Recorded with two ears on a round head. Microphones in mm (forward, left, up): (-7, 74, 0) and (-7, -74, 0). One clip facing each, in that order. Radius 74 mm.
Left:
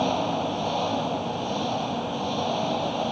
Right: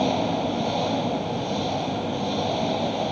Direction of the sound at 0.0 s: 15° right (ahead or behind).